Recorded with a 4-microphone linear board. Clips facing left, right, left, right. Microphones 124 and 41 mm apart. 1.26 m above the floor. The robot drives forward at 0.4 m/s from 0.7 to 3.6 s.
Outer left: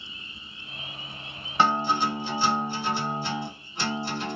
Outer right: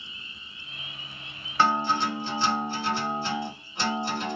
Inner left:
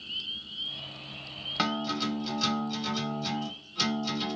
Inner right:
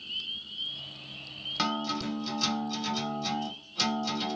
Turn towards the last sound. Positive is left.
turn(degrees=10)  # may be behind; listen again after turning